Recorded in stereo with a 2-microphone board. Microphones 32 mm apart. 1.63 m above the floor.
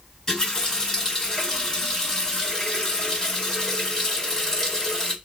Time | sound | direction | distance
0.3 | a running tap | 20° left (ahead or behind) | 1.3 m